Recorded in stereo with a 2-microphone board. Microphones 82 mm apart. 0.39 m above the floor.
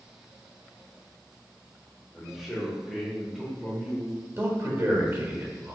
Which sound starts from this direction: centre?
A man speaking, at 2.1 s.